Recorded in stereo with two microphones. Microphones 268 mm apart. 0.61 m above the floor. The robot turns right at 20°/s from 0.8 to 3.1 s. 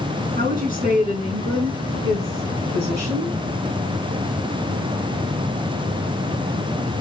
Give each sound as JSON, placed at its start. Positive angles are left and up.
{"t": 0.4, "sound": "a woman speaking", "azimuth_deg": -145, "distance_m": 5.5}